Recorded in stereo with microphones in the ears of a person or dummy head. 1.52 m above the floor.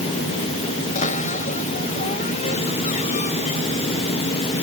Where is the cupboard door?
40° left (ahead or behind).